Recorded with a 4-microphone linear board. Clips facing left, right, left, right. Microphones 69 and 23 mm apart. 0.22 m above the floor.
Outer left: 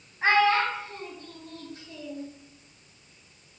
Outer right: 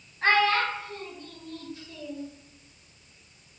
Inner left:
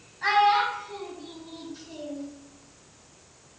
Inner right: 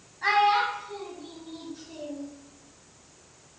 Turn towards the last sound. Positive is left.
turn(degrees=65)  # may be behind; listen again after turning